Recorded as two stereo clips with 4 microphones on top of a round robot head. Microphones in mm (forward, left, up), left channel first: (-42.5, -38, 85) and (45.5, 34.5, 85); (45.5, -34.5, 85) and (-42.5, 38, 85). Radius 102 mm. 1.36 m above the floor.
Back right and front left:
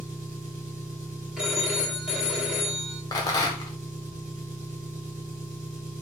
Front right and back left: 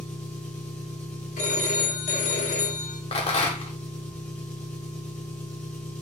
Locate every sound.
0.0 s an engine running: 35° left, 1.3 m
1.4 s a phone ringing: 45° right, 1.4 m
3.1 s a rattle: 80° right, 0.8 m